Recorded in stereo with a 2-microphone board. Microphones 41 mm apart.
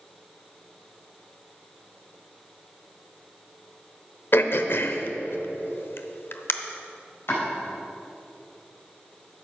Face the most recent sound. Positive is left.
turn(degrees=60)  # may be behind; listen again after turning